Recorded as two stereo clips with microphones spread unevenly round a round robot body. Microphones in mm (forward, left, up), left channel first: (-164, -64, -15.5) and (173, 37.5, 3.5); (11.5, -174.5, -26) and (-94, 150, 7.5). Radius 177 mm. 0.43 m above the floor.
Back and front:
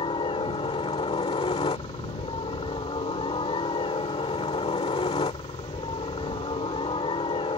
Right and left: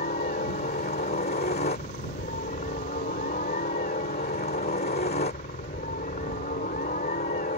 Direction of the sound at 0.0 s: 105° right.